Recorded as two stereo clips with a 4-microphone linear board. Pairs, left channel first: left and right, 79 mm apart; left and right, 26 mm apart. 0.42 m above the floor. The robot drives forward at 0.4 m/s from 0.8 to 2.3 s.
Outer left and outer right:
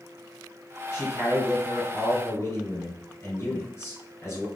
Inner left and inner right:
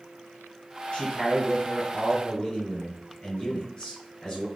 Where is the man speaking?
35° left (ahead or behind), 1.7 m.